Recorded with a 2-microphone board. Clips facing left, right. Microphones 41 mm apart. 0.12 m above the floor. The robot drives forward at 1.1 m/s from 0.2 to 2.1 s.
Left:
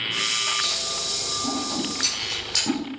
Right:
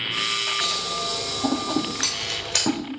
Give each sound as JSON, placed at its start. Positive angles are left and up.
{"t": 0.6, "sound": "scissors", "side_deg": -70, "distance_m": 1.8}